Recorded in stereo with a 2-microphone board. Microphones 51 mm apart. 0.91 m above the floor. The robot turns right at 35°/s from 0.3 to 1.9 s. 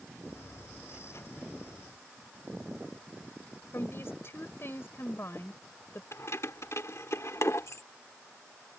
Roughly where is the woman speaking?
Left.